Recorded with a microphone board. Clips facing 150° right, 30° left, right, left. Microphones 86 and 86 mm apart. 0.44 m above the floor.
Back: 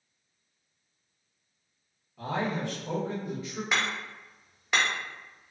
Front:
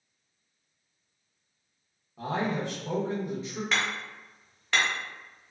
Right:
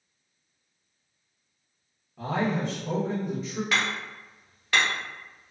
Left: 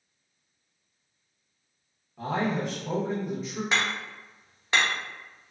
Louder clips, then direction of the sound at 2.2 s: Front 1 dB, right 1 dB; straight ahead.